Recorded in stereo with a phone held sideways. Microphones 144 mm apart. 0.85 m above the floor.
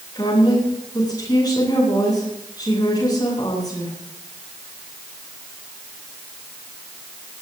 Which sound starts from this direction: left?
A woman speaking, at 0.1 s.